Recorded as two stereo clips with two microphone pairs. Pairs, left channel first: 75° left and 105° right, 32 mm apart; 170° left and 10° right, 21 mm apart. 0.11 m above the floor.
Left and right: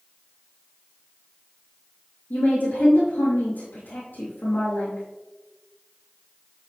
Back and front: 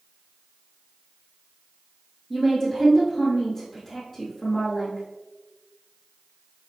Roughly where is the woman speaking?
Left.